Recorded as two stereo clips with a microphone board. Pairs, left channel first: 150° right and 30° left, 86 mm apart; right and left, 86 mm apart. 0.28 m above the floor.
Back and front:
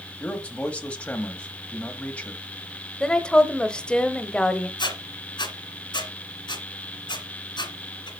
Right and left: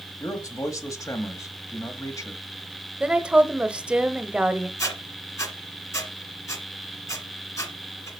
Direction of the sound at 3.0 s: 150° left.